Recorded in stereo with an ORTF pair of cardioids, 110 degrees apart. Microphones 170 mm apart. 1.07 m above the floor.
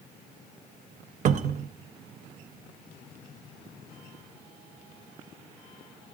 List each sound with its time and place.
1.2 s a cupboard door: 45° right, 0.6 m